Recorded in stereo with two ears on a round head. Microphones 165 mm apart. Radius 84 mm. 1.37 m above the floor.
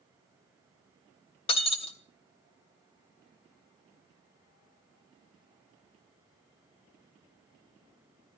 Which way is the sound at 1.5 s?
30° left (ahead or behind).